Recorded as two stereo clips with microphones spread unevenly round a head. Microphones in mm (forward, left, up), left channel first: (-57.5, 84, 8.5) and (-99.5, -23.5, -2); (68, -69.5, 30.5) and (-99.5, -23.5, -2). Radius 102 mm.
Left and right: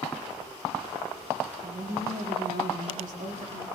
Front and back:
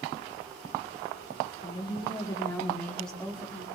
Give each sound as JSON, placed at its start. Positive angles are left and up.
{"t": 1.6, "sound": "a woman speaking", "azimuth_deg": -75, "distance_m": 3.0}